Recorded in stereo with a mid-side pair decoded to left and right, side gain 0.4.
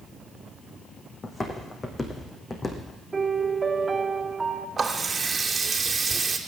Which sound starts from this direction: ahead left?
Footsteps, at 1.2 s.